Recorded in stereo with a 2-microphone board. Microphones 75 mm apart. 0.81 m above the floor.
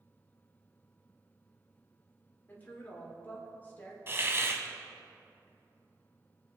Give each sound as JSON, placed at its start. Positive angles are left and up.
{"t": 2.5, "sound": "a woman speaking", "side_deg": 25, "distance_m": 2.5}
{"t": 4.1, "sound": "a hiss", "side_deg": -35, "distance_m": 1.2}